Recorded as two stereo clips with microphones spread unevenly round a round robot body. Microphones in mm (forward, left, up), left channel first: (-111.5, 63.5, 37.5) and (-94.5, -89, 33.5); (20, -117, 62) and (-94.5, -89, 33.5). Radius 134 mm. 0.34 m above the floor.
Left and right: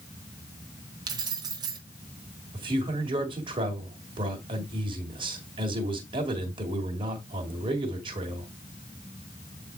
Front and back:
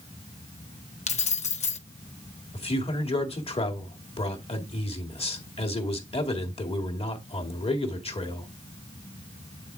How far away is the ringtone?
No ringtone in this recording.